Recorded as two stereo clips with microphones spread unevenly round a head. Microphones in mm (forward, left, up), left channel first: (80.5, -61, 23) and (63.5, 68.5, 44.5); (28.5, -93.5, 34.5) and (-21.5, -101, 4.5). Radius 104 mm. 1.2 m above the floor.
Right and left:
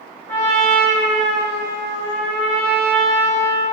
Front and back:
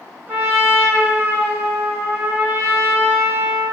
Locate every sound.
0.3 s a trumpet: 150° right, 1.3 m